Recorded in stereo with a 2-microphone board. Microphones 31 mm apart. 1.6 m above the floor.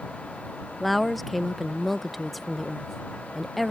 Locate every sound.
0.8 s a woman speaking: 5° right (ahead or behind)